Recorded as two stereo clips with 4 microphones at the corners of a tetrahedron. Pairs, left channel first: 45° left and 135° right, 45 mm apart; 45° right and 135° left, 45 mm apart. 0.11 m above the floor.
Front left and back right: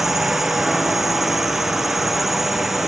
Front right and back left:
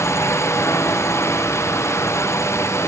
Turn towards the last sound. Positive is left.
turn(degrees=-50)